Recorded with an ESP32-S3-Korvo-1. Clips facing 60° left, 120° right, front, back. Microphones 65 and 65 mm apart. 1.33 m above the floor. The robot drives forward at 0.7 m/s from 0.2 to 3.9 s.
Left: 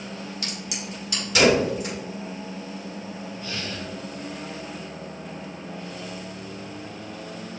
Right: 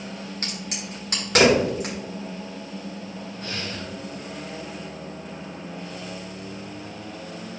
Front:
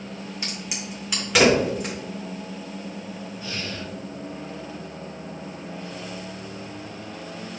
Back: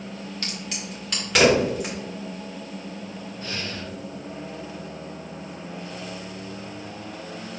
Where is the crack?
70° right, 2.5 m; by 1.9 s 100° right, 2.5 m.